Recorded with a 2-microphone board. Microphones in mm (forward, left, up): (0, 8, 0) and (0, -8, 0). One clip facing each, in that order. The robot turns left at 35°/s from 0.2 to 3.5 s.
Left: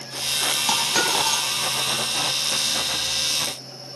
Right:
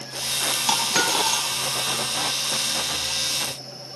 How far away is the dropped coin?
About 3.5 m.